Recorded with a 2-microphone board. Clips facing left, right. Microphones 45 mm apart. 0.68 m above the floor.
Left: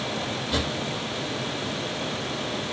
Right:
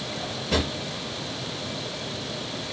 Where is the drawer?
65° right (ahead or behind), 3 m.